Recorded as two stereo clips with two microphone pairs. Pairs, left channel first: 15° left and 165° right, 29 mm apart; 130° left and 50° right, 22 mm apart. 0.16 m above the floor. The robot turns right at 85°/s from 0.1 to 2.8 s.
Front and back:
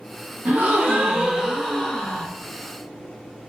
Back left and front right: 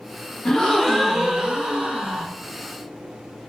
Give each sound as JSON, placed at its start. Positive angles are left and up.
{"t": 0.5, "sound": "a gasp", "azimuth_deg": -175, "distance_m": 1.0}